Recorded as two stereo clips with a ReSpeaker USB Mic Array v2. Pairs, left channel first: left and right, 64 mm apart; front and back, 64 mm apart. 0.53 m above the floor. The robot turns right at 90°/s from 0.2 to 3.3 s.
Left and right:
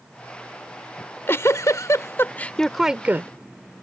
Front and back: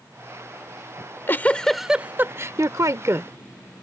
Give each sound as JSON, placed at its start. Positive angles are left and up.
{"t": 1.0, "sound": "a giggle", "azimuth_deg": 20}